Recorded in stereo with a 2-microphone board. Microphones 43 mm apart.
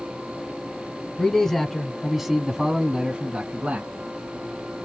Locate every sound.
1.2 s a man speaking: 15° left (ahead or behind), 1.4 m; by 3.9 s 40° right (ahead or behind), 1.6 m